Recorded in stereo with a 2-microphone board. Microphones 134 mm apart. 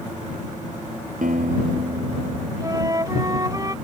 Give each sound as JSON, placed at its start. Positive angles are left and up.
{"t": 1.2, "sound": "a guitar", "side_deg": -80}
{"t": 2.6, "sound": "a flute", "side_deg": -30}